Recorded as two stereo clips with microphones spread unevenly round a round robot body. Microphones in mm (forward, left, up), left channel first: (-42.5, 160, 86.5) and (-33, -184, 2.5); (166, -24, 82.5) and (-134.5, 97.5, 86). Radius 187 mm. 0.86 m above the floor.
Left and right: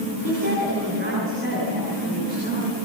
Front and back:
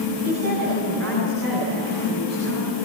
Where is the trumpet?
I don't hear a trumpet.